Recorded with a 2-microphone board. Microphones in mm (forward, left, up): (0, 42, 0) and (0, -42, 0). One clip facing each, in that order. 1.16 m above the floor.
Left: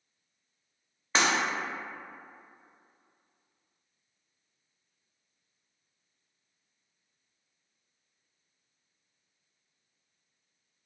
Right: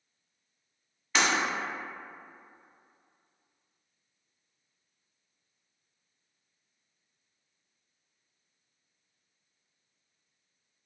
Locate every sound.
1.1 s breaking glass: 35° left (ahead or behind), 0.6 m